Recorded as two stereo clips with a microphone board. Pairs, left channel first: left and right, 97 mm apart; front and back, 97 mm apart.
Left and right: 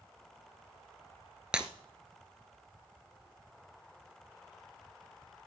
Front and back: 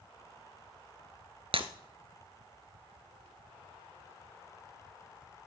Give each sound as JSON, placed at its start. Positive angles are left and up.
{"t": 1.5, "sound": "breaking glass", "azimuth_deg": -170, "distance_m": 1.2}